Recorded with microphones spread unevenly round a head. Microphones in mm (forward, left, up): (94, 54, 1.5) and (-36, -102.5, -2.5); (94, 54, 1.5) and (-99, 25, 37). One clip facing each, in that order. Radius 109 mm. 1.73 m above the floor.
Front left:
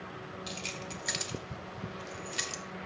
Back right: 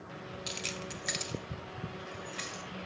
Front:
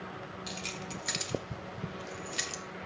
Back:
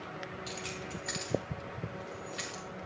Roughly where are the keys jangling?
Right.